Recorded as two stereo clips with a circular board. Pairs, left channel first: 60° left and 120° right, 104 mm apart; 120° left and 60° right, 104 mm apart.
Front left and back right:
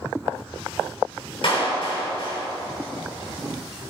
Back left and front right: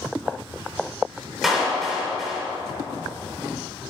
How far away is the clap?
About 4.5 m.